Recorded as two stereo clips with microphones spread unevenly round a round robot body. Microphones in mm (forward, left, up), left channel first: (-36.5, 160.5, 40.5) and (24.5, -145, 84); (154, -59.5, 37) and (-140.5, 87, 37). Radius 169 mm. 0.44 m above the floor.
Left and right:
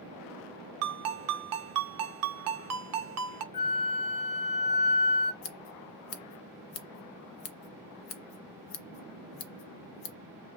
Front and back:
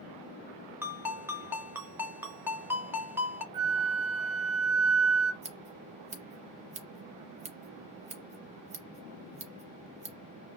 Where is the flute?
105° left, 0.7 m.